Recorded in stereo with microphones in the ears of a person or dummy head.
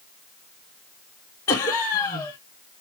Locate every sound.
1.5 s laughter: 15° left (ahead or behind), 0.8 m